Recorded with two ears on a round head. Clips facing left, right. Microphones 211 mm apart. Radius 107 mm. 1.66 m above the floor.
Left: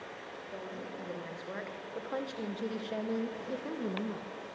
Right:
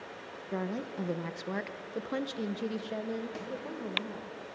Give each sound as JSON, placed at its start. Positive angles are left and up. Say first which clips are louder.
{"t": 0.5, "sound": "a woman speaking", "louder": "right 8 dB", "side_deg": -75, "distance_m": 1.8}
{"t": 3.4, "sound": "a snare drum", "louder": "right 1 dB", "side_deg": -75, "distance_m": 4.0}